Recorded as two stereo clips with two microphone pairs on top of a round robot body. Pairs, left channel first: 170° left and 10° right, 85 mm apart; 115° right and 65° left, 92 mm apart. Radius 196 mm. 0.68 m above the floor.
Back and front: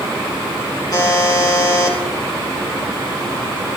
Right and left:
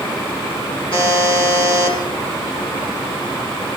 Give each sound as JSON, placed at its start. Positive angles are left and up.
{"t": 0.9, "sound": "a buzzer", "azimuth_deg": -145, "distance_m": 3.0}